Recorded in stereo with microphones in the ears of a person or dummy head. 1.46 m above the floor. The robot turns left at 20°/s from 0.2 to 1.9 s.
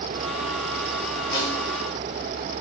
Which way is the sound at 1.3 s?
25° left (ahead or behind).